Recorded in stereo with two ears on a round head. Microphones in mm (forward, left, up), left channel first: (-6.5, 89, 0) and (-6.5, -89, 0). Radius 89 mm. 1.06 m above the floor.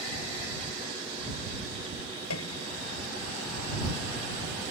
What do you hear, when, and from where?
2.3 s a piano: 85° left